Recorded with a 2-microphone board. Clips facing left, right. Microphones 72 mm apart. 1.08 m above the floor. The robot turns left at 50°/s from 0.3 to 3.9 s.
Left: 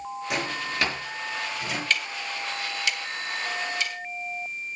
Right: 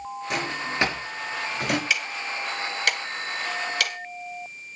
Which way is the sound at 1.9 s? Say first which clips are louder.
Right 1 dB; 10° right (ahead or behind).